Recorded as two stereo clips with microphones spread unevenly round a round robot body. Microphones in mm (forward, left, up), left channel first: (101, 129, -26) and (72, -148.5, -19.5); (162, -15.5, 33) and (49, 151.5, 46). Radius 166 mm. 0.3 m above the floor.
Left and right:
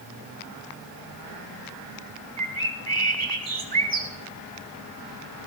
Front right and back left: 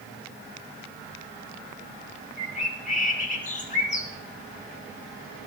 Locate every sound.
2.4 s a bird: 55° right, 1.9 m